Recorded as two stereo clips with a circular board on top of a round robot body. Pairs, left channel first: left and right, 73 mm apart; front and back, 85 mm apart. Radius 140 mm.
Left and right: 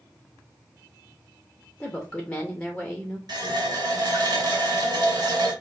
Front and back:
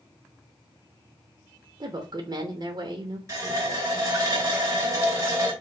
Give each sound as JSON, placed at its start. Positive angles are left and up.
{"t": 1.8, "sound": "a woman speaking", "azimuth_deg": 160, "distance_m": 0.9}
{"t": 3.3, "sound": "a running tap", "azimuth_deg": -125, "distance_m": 2.0}